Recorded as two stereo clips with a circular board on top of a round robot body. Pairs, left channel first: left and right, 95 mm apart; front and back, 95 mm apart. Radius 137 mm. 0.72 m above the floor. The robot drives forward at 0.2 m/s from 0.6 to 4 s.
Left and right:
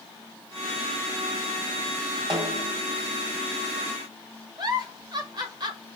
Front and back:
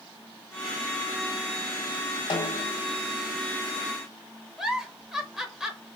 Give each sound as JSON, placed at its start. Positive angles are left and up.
{"t": 2.3, "sound": "a snare drum", "azimuth_deg": -40, "distance_m": 1.0}
{"t": 4.6, "sound": "a giggle", "azimuth_deg": -100, "distance_m": 1.1}